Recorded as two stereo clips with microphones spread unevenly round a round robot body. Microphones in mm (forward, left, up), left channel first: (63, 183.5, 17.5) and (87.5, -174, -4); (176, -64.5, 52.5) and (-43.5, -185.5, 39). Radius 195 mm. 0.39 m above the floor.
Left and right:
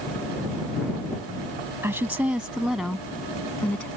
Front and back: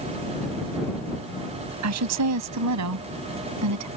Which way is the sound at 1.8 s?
170° right.